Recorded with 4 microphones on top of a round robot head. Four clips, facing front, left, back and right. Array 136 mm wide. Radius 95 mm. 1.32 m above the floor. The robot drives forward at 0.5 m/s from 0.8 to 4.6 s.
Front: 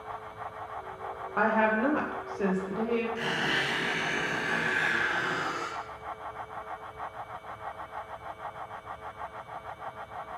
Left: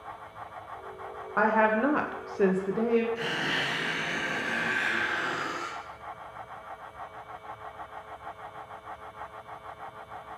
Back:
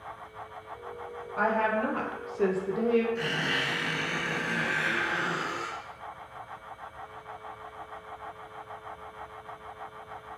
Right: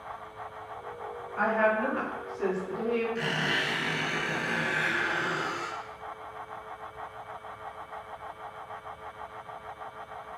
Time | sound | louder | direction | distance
1.4 | a woman speaking | left 2 dB, front 1 dB | 55° left | 0.7 m
3.1 | a squeak | right 1 dB, even | 125° right | 1.7 m